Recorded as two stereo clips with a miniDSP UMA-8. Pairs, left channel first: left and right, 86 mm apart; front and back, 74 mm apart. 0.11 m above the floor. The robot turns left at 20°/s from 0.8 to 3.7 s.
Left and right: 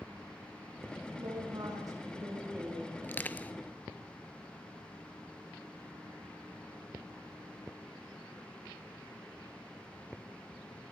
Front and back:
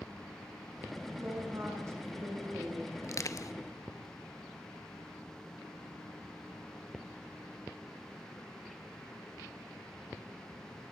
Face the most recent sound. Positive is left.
turn(degrees=15)